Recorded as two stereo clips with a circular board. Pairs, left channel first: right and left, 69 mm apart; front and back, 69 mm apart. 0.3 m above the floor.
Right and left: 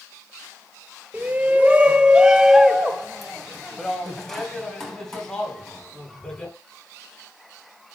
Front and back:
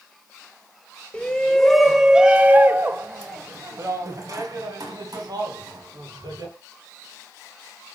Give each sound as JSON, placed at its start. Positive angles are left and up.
{"t": 1.1, "sound": "a shout", "azimuth_deg": 55, "distance_m": 1.0}